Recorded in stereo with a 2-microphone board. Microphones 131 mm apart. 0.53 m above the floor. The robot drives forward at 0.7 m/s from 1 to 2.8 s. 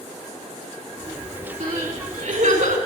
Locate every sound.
1.6 s crying: 80° right, 5 m